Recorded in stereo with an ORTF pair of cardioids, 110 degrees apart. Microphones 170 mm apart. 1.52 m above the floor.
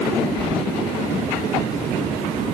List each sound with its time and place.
0.4 s keys jangling: straight ahead, 3.5 m